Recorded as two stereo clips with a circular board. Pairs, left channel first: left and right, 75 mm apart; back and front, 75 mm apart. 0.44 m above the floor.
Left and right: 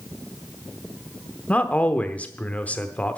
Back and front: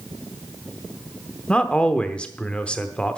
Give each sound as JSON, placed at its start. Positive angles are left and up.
{"t": 1.5, "sound": "a man speaking", "azimuth_deg": 125, "distance_m": 0.9}